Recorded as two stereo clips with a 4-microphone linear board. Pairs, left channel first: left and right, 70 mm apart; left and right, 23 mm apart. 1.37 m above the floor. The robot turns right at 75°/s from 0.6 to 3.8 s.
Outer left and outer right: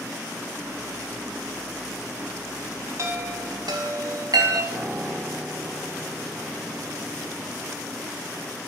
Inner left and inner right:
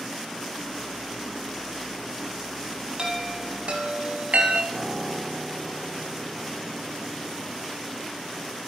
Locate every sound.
3.0 s a chime: 45° right (ahead or behind), 3 m; by 4.6 s 75° right (ahead or behind), 3 m
4.7 s a piano: 25° right (ahead or behind), 9 m